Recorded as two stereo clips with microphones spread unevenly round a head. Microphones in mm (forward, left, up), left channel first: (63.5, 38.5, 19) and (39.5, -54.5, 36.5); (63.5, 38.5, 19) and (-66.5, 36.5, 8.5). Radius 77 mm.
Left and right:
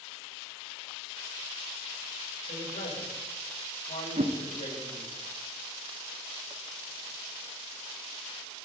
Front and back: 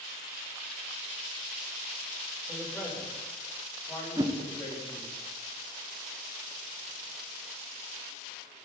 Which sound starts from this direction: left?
A man speaking, at 2.5 s.